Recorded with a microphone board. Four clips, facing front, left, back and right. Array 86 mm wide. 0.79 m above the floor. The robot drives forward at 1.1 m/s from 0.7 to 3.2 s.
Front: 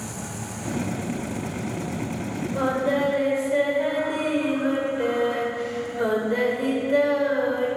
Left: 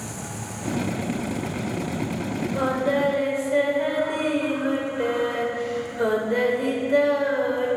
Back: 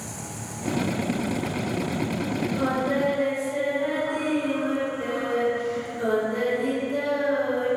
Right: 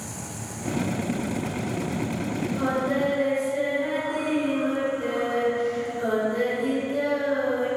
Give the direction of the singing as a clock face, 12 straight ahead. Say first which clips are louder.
Left 3 dB, front 3 dB; 11 o'clock.